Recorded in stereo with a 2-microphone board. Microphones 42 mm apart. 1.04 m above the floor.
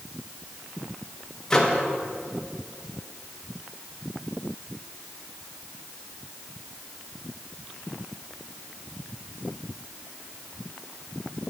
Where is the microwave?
15° left (ahead or behind), 0.9 m.